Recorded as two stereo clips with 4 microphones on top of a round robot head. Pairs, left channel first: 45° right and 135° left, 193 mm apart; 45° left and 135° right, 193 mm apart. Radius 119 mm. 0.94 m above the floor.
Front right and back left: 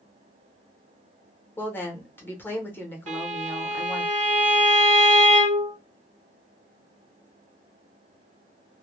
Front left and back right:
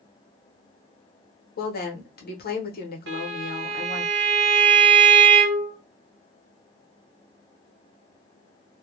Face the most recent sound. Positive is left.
turn(degrees=-170)